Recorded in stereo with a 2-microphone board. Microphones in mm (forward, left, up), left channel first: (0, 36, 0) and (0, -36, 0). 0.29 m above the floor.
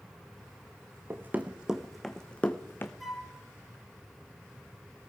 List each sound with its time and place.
1.1 s running footsteps: 30° right (ahead or behind), 1.0 m; by 2.9 s 30° left (ahead or behind), 1.2 m
3.0 s a flute: centre (ahead or behind), 1.9 m